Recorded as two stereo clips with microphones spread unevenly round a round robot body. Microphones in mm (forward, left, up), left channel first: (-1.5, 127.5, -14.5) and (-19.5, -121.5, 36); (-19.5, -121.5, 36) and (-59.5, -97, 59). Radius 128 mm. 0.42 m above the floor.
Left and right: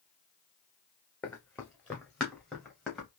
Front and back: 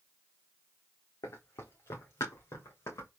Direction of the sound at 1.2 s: Straight ahead.